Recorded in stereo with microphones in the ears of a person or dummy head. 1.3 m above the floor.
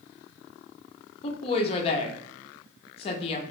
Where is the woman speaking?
35° left (ahead or behind), 0.8 m.